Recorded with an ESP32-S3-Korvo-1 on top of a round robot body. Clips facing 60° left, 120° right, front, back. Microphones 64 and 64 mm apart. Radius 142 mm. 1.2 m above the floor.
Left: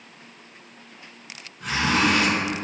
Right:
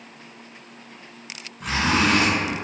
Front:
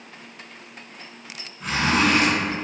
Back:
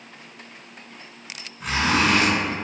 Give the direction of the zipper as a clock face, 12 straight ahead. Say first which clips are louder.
Right 1 dB, even; 4 o'clock.